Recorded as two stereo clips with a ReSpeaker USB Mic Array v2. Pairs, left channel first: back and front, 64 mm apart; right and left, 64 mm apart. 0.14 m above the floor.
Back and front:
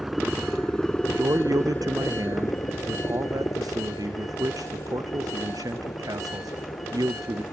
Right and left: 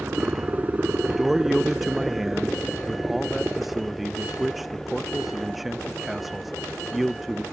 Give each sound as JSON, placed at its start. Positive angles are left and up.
{"t": 0.0, "sound": "a helicopter", "azimuth_deg": 75}
{"t": 1.1, "sound": "a man speaking", "azimuth_deg": 5}